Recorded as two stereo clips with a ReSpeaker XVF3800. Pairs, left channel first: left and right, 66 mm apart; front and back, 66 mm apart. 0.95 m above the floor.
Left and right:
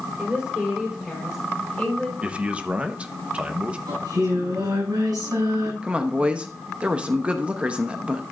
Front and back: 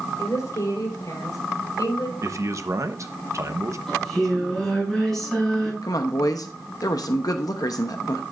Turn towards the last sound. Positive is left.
turn(degrees=-20)